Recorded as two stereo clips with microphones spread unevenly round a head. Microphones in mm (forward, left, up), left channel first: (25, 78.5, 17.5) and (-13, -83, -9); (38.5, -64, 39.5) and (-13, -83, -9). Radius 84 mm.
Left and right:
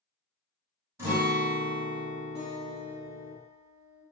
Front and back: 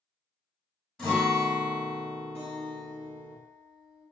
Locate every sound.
1.0 s a guitar: 25° right, 1.2 m
2.4 s a guitar: 15° right, 1.8 m